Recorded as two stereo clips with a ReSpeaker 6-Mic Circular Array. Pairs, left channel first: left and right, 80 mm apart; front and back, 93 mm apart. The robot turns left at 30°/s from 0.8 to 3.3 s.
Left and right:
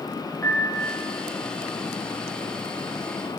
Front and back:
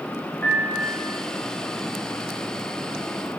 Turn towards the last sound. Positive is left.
turn(degrees=-20)